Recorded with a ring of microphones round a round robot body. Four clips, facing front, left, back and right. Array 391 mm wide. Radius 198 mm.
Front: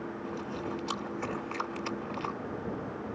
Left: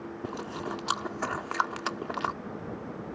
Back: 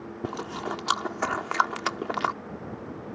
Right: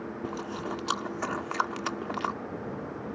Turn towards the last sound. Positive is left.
turn(degrees=175)